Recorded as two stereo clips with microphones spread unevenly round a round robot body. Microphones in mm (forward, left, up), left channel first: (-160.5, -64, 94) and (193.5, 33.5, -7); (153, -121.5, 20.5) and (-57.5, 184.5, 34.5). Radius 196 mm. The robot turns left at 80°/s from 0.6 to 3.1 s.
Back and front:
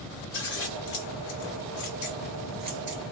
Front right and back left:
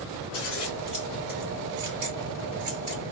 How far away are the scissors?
About 1.5 m.